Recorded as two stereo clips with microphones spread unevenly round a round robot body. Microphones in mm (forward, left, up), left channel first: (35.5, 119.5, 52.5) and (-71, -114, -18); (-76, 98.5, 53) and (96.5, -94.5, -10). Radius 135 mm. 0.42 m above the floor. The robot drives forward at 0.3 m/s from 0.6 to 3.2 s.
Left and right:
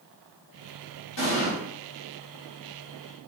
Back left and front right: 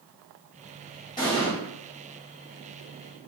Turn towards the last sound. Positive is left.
turn(degrees=105)